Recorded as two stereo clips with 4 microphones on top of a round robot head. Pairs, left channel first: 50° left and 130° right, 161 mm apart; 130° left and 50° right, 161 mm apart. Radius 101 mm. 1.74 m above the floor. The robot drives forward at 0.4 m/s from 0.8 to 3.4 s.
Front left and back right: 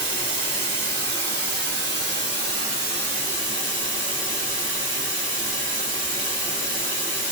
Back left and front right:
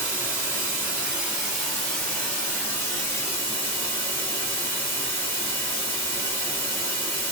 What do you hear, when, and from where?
0.0 s running water: 120° right, 1.2 m; by 7.3 s 155° right, 1.8 m